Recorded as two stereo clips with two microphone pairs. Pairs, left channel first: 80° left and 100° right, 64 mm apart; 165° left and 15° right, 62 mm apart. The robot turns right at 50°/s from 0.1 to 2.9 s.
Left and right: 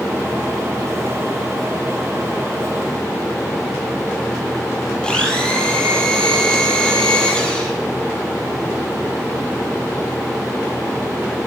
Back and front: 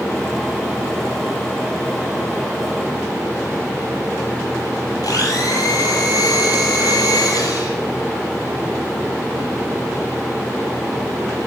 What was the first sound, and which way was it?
A blender, 155° left.